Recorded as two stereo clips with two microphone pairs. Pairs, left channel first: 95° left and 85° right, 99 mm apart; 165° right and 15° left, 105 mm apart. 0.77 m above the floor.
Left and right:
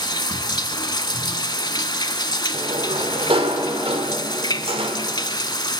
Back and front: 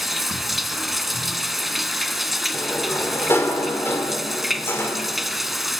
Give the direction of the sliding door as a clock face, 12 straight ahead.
3 o'clock.